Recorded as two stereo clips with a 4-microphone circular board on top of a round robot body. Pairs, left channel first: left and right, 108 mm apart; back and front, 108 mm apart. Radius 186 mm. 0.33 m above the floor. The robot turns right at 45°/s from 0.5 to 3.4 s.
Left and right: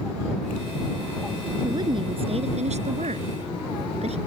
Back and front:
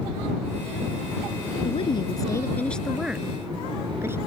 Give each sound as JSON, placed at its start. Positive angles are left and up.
{"t": 1.6, "sound": "a woman speaking", "azimuth_deg": -150}